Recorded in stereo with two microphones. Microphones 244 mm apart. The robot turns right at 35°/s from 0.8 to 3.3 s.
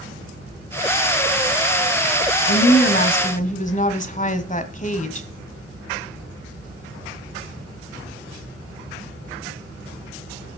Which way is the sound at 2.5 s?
50° left (ahead or behind).